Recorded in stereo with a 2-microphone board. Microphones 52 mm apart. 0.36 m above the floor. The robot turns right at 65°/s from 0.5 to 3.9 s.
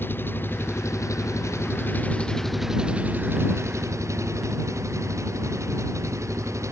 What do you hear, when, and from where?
0.0 s an engine running: 45° left; by 6.7 s 90° right